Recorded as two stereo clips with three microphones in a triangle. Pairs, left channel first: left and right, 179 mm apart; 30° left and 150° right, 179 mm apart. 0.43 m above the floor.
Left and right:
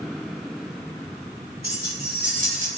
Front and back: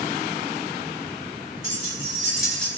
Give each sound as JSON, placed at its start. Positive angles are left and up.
{"t": 1.6, "sound": "keys jangling", "azimuth_deg": -85, "distance_m": 1.6}